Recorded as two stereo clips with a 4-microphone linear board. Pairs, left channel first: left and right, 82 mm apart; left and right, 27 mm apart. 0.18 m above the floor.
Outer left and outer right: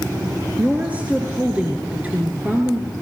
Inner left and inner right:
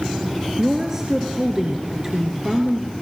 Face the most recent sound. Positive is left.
turn(degrees=-20)  # may be behind; listen again after turning